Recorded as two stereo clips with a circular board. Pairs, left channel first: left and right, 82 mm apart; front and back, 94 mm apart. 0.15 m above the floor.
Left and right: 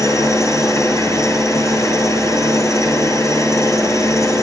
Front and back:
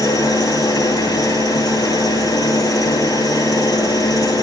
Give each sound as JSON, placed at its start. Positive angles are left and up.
{"t": 0.0, "sound": "an engine running", "azimuth_deg": 45, "distance_m": 1.6}